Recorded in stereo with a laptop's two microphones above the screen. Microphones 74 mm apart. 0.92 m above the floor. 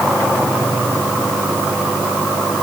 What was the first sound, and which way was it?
Only background noise.